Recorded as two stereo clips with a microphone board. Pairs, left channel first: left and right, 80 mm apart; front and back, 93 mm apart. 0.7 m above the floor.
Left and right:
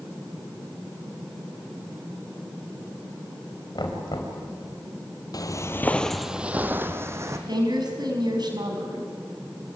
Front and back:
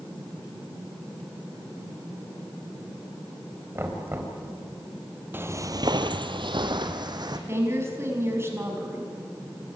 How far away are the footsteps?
About 1.3 m.